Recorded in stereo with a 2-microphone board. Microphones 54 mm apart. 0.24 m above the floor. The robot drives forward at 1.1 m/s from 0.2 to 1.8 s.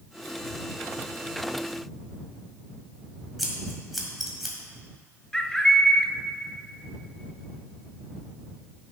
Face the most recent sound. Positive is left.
turn(degrees=15)  # may be behind; listen again after turning